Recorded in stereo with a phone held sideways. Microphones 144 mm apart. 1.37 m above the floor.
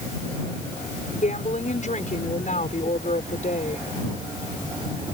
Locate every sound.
1.2 s a woman speaking: 60° left (ahead or behind)